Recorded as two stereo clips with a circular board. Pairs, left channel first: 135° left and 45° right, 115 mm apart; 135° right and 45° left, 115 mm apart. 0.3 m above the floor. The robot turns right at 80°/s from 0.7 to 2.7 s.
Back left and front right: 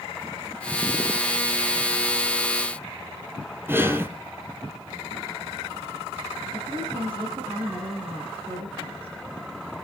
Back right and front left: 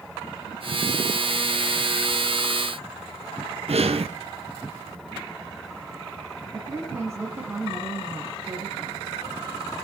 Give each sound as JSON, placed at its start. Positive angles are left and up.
{"t": 3.7, "sound": "breathing", "azimuth_deg": 25, "distance_m": 1.1}
{"t": 6.5, "sound": "a woman speaking", "azimuth_deg": -20, "distance_m": 2.5}